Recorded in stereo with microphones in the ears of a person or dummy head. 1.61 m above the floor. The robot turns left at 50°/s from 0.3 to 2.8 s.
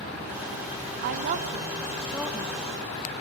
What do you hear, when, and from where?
1.0 s a woman speaking: 120° right, 1.3 m; by 2.7 s 160° left, 1.3 m